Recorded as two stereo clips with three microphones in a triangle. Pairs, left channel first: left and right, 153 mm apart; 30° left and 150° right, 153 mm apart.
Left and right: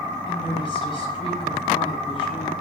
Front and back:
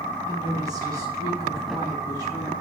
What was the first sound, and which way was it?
A woman speaking, 145° left.